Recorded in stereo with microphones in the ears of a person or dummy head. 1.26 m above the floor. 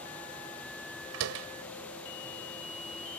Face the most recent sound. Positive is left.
turn(degrees=-80)